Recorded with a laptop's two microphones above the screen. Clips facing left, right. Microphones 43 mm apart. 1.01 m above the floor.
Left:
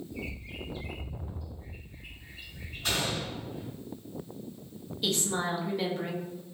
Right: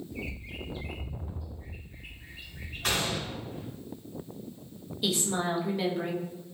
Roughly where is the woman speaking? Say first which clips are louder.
Right 1 dB; centre.